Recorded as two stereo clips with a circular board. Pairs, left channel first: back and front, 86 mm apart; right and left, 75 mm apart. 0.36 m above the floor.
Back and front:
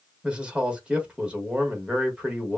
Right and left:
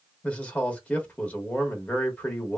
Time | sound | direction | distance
0.2 | a man speaking | 55° right | 1.0 m